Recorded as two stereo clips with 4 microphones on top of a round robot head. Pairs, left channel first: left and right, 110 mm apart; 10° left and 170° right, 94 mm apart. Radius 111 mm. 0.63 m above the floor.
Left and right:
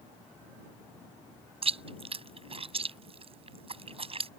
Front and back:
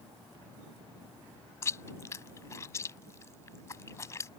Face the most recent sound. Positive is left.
turn(degrees=-55)